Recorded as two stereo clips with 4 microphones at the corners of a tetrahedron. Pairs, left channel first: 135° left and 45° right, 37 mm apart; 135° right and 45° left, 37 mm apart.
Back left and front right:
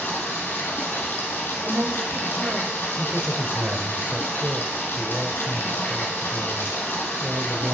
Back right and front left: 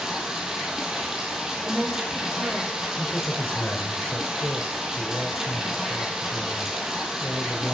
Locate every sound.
0.0 s running water: 120° left, 2.5 m
1.6 s a woman speaking: 25° right, 5 m
3.0 s a man speaking: 90° right, 2.5 m